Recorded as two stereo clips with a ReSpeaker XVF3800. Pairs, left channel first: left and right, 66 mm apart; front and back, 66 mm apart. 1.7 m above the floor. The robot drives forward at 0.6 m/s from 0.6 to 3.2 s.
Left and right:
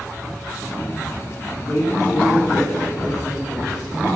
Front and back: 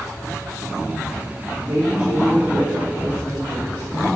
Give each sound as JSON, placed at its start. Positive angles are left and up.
{"t": 1.6, "sound": "a woman speaking", "azimuth_deg": 105, "distance_m": 4.0}